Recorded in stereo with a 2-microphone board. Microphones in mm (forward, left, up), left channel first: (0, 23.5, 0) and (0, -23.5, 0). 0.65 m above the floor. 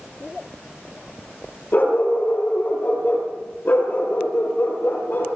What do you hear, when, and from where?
1.7 s a dog barking: 40° left (ahead or behind), 7.5 m; by 5.3 s 55° left (ahead or behind), 8.5 m